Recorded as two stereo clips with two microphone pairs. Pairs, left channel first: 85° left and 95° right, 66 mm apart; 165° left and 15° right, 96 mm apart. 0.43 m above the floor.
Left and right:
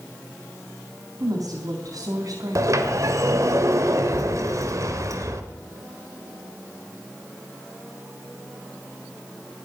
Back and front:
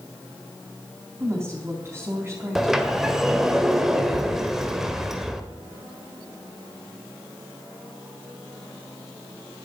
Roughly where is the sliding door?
Right.